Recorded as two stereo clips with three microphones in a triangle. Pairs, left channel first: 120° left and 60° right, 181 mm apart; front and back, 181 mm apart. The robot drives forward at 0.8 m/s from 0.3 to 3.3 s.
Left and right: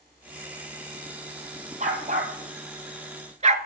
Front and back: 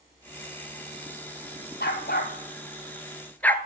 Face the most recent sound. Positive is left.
turn(degrees=-75)